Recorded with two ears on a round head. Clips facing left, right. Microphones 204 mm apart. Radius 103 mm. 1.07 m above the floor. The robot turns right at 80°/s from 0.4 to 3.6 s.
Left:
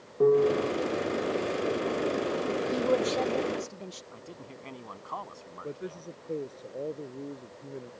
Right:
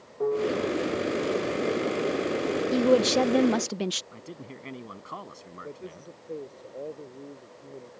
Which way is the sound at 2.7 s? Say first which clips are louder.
Right 7 dB; 150° right.